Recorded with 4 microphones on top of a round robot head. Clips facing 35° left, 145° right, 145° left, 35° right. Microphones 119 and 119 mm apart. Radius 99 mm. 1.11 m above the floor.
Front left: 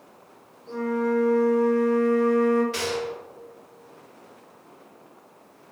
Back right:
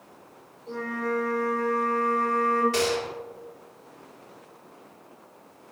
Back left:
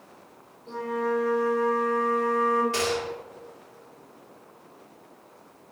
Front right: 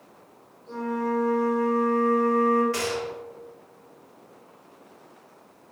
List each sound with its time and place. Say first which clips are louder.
0.7 s a flute: front left 5 dB, even; 85° left, 1.9 m
2.7 s a gunshot: back right 2 dB, back left 1 dB; 160° right, 0.9 m